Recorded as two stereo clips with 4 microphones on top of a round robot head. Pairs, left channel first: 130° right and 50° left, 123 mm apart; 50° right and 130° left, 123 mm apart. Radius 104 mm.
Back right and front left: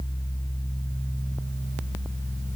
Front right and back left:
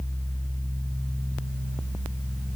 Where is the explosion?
No explosion in this recording.